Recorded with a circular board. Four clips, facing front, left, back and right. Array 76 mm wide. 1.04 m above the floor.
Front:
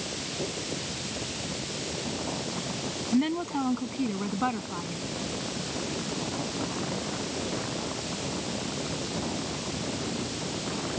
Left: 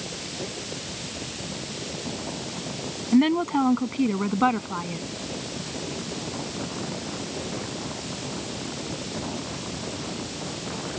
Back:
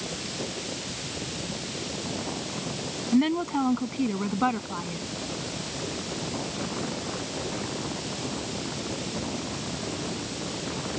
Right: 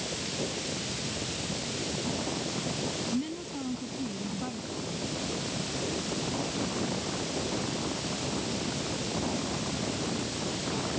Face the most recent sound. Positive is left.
turn(degrees=100)